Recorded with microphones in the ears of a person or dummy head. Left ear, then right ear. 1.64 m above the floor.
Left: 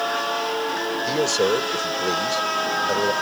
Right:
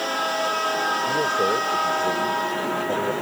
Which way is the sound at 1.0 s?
80° left.